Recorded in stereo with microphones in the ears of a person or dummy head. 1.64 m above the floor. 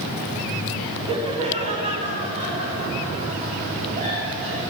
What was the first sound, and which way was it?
Laughter, 25° right (ahead or behind).